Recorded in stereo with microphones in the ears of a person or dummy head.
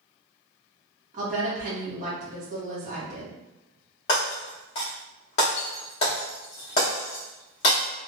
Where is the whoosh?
I don't hear a whoosh.